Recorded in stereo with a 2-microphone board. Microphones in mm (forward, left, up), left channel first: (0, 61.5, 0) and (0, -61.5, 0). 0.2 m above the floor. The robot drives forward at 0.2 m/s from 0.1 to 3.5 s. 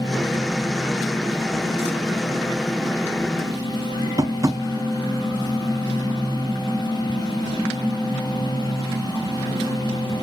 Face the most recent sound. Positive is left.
turn(degrees=-30)  # may be behind; listen again after turning